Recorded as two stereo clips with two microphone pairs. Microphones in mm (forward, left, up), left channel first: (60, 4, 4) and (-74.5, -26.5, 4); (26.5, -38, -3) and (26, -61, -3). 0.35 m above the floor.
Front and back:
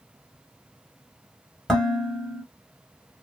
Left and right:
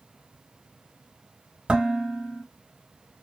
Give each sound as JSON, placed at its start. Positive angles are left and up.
{"t": 1.7, "sound": "dishes clattering", "azimuth_deg": -75, "distance_m": 0.9}